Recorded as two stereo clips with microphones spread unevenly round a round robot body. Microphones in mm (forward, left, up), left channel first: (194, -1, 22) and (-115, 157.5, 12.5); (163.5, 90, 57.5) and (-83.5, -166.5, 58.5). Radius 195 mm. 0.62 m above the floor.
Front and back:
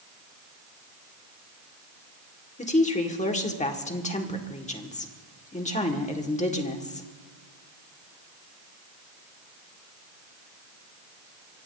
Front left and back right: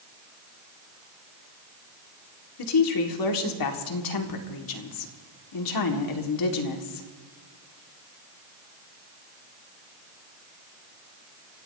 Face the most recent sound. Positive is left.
turn(degrees=40)